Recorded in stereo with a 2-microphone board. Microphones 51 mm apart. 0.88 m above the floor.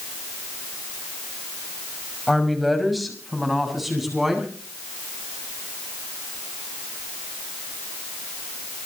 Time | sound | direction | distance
2.3 | a woman speaking | centre (ahead or behind) | 5.5 m